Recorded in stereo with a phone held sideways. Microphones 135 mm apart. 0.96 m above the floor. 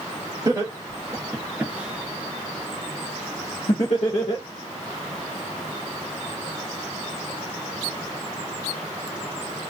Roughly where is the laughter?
Right.